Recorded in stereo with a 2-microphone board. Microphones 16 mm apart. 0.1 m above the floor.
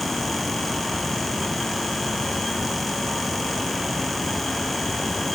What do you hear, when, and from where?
Only background noise.